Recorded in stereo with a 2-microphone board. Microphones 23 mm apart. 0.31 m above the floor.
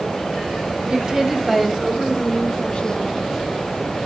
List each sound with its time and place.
0.9 s a woman speaking: 35° right (ahead or behind), 2 m; by 3.3 s 50° left (ahead or behind), 3 m